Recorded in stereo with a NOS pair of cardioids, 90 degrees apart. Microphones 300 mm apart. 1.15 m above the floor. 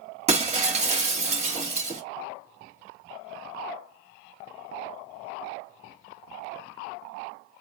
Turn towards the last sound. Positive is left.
turn(degrees=-20)